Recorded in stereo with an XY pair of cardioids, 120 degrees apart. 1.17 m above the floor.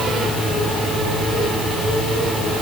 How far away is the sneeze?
No sneeze in this recording.